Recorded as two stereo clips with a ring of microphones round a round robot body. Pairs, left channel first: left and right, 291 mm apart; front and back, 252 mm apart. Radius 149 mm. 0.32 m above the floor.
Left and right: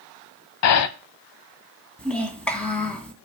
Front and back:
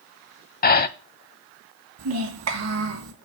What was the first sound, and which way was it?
Breathing, 55° left.